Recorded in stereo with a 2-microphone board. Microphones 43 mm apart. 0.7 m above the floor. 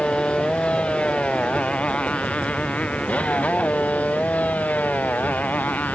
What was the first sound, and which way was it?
A motorcycle, 25° left (ahead or behind).